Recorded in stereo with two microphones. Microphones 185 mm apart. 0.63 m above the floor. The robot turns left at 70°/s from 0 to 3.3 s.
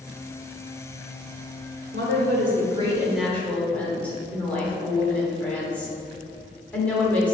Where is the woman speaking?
90° right, 2.0 m; by 7.3 s 170° left, 2.0 m.